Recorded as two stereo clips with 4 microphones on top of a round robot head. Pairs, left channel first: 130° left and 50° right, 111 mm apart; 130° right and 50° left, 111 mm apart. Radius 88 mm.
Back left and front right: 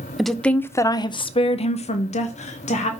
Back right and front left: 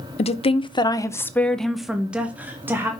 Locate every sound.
0.2 s a woman speaking: 140° right, 0.7 m; by 2.9 s 120° left, 1.3 m